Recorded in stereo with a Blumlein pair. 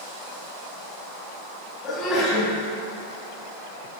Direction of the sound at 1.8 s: 25° left.